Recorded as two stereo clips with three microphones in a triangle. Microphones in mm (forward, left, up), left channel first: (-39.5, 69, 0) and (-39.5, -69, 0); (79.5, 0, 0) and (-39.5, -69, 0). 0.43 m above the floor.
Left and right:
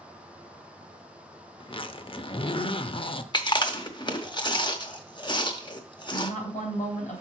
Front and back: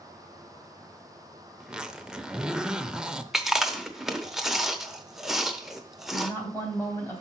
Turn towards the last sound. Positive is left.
turn(degrees=100)